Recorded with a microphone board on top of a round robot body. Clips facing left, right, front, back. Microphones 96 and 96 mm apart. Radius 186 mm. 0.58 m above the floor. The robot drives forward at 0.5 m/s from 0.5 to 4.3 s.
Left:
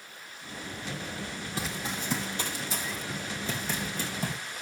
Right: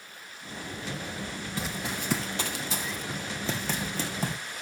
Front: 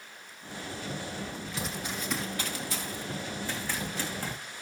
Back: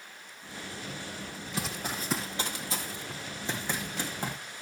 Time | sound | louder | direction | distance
1.6 | running footsteps | right 1 dB, back 2 dB | 150° left | 0.5 m